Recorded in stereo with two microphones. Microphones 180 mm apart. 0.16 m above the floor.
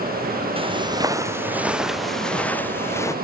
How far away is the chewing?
No chewing in this recording.